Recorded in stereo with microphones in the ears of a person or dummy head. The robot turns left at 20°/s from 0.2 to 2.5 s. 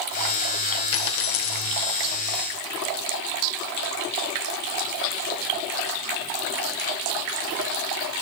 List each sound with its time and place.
0.9 s a dropped coin: 70° left (ahead or behind), 1.9 m; by 1.7 s 75° left (ahead or behind), 1.9 m